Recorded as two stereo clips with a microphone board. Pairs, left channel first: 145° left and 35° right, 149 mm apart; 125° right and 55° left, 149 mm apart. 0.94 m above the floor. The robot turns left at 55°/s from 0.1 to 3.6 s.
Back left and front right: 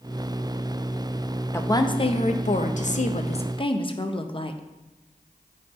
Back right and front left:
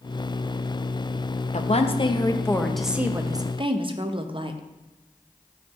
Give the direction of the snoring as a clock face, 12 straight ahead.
No snoring in this recording.